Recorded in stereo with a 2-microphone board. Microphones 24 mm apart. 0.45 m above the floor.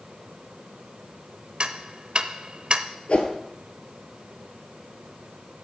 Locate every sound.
1.6 s ticking: 45° right (ahead or behind), 0.7 m
3.1 s a whoosh: 60° left (ahead or behind), 1.3 m